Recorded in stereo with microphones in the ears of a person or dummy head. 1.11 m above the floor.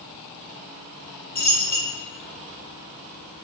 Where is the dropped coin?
15° left (ahead or behind), 1.0 m.